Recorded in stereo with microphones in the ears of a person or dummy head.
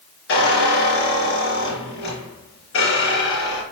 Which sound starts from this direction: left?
A squeak, at 0.3 s.